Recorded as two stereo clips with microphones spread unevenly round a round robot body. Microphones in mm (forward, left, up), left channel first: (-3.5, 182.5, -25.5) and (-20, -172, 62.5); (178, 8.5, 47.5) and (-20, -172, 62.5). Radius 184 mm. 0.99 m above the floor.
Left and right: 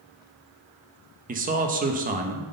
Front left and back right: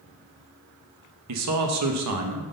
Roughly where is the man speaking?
Behind.